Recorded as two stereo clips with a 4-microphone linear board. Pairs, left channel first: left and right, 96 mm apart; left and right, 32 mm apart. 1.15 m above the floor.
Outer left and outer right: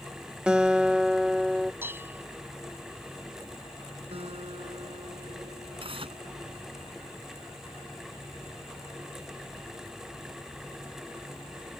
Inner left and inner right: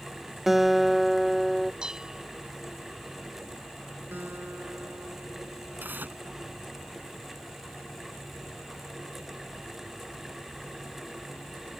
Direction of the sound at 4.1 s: 85° right.